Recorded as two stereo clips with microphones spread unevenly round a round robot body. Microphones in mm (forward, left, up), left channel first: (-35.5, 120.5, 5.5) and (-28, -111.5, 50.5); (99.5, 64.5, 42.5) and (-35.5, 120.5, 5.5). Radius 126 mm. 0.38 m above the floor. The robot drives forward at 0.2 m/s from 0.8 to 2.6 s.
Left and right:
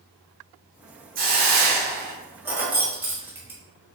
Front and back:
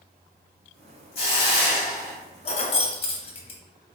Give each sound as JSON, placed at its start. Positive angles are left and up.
{"t": 1.1, "sound": "a hiss", "azimuth_deg": -60, "distance_m": 0.6}
{"t": 2.5, "sound": "keys jangling", "azimuth_deg": 10, "distance_m": 0.6}